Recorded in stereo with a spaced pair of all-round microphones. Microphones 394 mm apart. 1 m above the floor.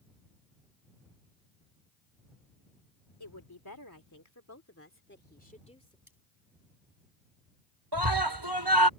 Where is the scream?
70° right (ahead or behind).